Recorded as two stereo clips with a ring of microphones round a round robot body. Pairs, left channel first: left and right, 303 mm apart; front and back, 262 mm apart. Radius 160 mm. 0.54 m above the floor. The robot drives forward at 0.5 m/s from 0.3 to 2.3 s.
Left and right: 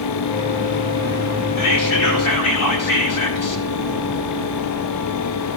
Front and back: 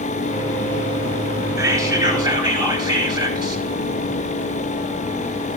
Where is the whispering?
100° left, 4.5 m; by 3.6 s 105° left, 4.5 m.